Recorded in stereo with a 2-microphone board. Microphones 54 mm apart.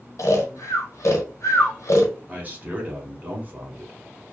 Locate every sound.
0.2 s snoring: 65° left (ahead or behind), 0.8 m
2.3 s a man speaking: 30° right (ahead or behind), 1.1 m